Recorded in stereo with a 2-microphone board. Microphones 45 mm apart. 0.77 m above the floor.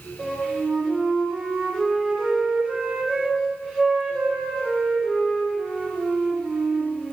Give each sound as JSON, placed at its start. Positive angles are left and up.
{"t": 0.2, "sound": "a flute", "side_deg": 5, "distance_m": 4.0}